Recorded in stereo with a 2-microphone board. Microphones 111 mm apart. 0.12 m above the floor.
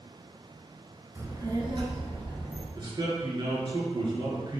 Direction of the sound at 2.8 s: 45° right (ahead or behind).